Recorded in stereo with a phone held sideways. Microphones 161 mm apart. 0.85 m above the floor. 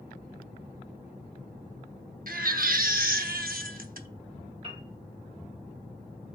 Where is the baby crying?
70° right (ahead or behind), 0.7 m.